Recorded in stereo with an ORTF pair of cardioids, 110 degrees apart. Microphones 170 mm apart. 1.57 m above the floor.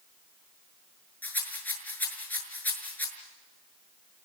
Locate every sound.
1.2 s a rattle: 10° left, 6.5 m